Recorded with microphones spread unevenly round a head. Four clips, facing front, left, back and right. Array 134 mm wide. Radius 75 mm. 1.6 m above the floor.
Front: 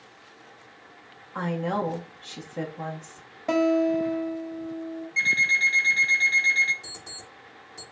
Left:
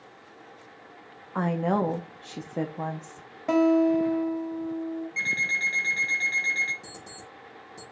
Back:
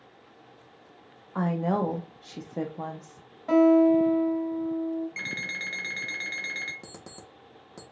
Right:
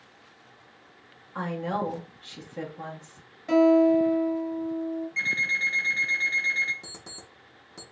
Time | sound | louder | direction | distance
1.4 | a woman speaking | left 4 dB, back 1 dB | 110° left | 0.7 m
3.5 | a guitar | right 2 dB, back 4 dB | 45° left | 1.5 m
5.2 | an alarm clock | even, front 10 dB | straight behind | 0.9 m
6.8 | an alarm clock | left 3 dB, even | 155° right | 1.4 m